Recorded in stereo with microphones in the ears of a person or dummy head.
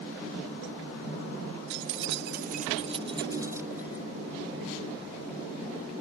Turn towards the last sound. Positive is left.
turn(degrees=-10)  # may be behind; listen again after turning